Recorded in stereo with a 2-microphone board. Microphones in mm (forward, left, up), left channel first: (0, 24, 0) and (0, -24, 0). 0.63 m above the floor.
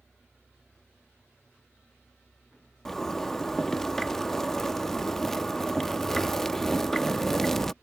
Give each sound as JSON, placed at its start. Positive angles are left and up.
{"t": 2.9, "sound": "a zipper", "side_deg": 5}